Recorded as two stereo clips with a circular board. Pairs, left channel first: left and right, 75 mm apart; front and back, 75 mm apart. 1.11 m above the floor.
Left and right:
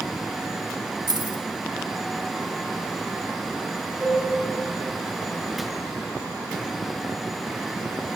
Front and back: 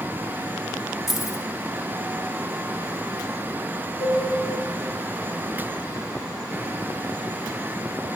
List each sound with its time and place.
1.1 s keys jangling: 95° right, 0.7 m
4.0 s a cowbell: 25° right, 3.5 m